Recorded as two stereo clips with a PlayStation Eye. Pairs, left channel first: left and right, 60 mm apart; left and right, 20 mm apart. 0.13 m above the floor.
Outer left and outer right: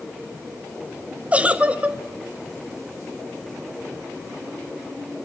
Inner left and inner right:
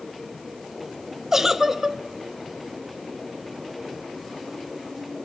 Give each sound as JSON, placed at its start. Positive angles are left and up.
{"t": 1.3, "sound": "a giggle", "side_deg": -25, "distance_m": 0.7}